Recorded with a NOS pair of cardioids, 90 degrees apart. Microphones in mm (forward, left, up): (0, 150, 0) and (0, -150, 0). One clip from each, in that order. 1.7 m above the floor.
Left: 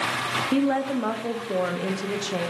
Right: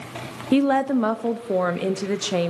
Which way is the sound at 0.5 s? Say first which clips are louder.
Right 9 dB; 30° right.